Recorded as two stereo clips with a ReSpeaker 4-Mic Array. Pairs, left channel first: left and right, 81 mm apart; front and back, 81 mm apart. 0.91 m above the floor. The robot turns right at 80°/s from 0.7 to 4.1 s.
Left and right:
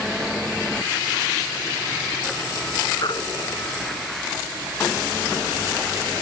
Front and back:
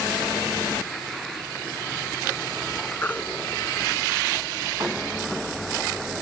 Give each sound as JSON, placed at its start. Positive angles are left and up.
{"t": 3.0, "sound": "a baby crying", "azimuth_deg": 60}